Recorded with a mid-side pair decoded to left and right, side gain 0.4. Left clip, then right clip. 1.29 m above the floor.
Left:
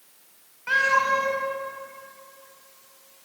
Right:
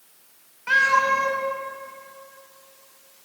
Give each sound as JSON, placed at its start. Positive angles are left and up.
{"t": 0.7, "sound": "a cat meowing", "azimuth_deg": -10, "distance_m": 3.0}